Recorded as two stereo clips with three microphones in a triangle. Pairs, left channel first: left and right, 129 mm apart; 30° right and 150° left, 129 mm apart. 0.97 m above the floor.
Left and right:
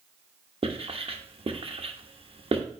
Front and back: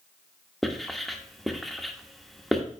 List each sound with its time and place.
0.6 s writing: 120° right, 0.8 m